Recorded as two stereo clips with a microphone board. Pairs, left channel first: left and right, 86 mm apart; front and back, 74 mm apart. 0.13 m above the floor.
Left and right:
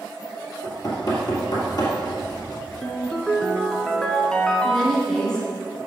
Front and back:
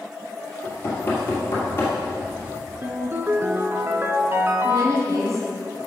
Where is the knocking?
55° left, 2.5 m.